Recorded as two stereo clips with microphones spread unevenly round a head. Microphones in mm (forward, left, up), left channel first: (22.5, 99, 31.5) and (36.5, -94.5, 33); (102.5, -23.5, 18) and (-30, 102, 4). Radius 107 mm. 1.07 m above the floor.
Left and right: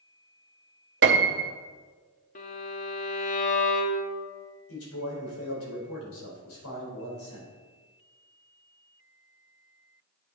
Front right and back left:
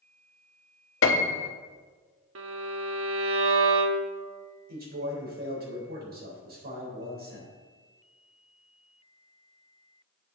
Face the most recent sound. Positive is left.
turn(degrees=100)